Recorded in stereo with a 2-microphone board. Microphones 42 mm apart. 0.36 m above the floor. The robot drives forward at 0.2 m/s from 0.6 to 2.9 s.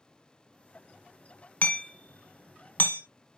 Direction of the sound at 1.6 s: 40° left (ahead or behind).